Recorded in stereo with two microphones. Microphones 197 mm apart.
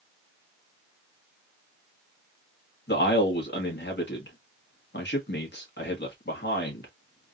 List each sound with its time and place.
2.9 s a man speaking: 60° left (ahead or behind), 1.6 m